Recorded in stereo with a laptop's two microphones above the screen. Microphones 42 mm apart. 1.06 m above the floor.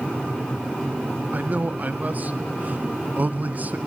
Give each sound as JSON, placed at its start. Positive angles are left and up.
{"t": 1.3, "sound": "a man speaking", "side_deg": -40, "distance_m": 0.6}